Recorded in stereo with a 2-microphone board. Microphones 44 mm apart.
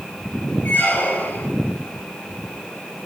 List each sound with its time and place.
0.7 s a squeak: 50° left (ahead or behind), 4 m